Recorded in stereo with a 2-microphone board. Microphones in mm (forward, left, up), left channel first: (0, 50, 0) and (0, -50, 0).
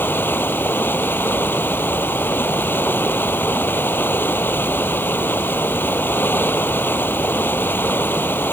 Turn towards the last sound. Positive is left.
turn(degrees=20)  # may be behind; listen again after turning